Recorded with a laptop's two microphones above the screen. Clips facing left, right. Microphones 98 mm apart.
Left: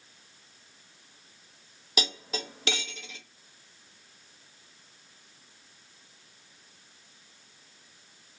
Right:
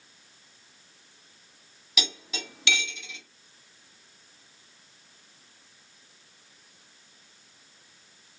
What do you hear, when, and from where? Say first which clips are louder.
2.0 s cutlery clinking: left 3 dB; 40° left (ahead or behind), 0.7 m